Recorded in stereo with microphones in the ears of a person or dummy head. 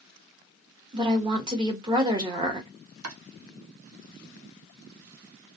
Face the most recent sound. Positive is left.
turn(degrees=-85)